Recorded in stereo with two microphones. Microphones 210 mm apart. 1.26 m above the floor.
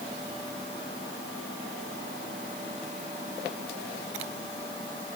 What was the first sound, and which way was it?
Only background noise.